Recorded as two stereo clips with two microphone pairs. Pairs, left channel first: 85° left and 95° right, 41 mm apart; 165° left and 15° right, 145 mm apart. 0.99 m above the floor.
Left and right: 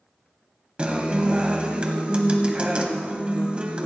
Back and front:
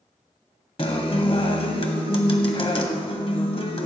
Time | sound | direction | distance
0.8 | a guitar | 150° right | 1.5 m